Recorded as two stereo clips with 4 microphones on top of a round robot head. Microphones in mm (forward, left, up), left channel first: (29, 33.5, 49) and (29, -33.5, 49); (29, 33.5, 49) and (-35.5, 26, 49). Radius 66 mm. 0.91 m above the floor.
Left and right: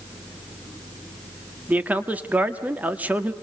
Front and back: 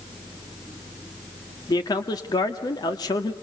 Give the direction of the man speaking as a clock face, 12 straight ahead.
1 o'clock.